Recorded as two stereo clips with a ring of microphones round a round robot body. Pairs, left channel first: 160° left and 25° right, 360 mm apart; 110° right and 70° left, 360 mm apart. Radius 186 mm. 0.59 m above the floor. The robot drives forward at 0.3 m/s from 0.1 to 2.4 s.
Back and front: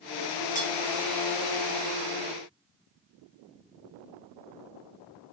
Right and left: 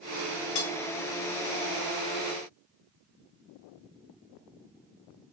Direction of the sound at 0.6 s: 135° right.